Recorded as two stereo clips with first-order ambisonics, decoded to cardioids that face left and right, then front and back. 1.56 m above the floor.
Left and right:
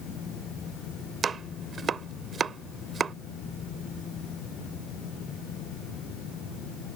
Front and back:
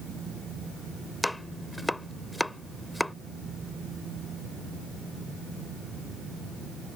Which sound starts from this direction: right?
Chopping, at 1.2 s.